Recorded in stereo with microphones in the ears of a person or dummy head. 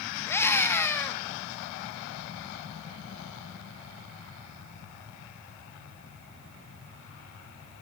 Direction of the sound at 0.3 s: 10° left (ahead or behind).